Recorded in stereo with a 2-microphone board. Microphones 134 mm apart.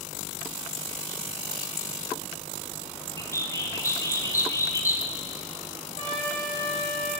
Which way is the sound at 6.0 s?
60° left (ahead or behind).